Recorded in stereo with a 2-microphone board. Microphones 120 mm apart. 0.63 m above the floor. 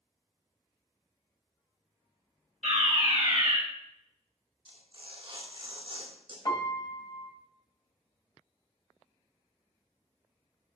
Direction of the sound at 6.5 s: 35° left (ahead or behind).